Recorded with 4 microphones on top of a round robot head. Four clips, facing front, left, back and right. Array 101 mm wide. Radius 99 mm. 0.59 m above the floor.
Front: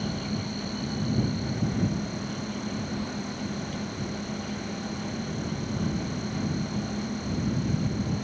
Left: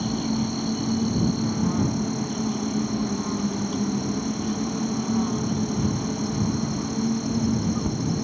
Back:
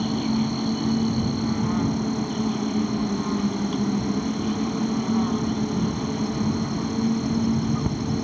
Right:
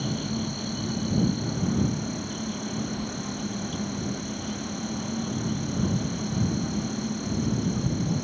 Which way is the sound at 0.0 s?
150° left.